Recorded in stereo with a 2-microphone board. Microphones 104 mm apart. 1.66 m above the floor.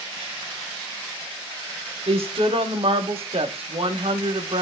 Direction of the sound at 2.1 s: 65° right (ahead or behind).